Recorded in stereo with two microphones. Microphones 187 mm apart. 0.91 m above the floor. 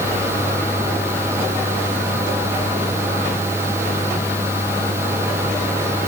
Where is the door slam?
I don't hear a door slam.